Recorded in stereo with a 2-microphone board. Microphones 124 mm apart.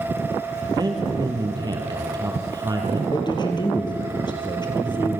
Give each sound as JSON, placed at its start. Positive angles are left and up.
{"t": 0.8, "sound": "a man speaking", "side_deg": -35, "distance_m": 2.5}
{"t": 3.1, "sound": "a man speaking", "side_deg": 35, "distance_m": 3.5}